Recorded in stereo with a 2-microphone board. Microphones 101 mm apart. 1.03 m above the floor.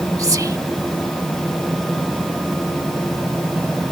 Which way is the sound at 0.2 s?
35° right (ahead or behind).